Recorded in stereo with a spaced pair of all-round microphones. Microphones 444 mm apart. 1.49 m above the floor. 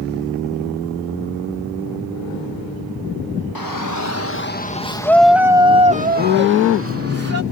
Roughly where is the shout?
Left.